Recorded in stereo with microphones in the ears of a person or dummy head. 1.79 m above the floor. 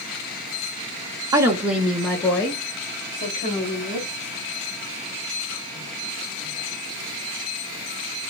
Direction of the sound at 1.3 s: 20° right (ahead or behind).